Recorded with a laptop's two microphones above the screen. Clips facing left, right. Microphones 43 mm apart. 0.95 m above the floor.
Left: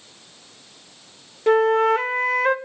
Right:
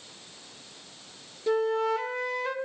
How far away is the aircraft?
I don't hear an aircraft.